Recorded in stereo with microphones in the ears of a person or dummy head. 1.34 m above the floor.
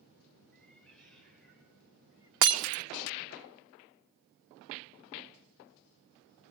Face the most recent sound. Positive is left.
turn(degrees=-60)  # may be behind; listen again after turning